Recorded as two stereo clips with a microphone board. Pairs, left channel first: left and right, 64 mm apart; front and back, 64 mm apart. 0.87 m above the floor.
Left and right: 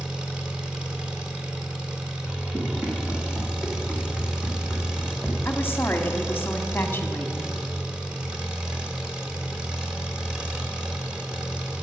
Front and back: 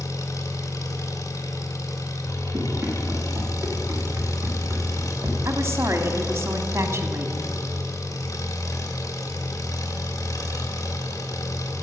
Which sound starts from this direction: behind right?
Running footsteps, at 2.5 s.